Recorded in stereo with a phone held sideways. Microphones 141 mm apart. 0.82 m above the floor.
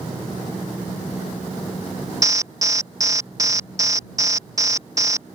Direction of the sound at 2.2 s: 25° right (ahead or behind).